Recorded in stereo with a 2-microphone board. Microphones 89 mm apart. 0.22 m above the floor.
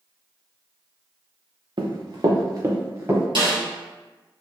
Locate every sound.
1.8 s running footsteps: 55° right (ahead or behind), 0.8 m; by 3.2 s 30° right (ahead or behind), 1.6 m
3.4 s a snare drum: 65° right (ahead or behind), 1.9 m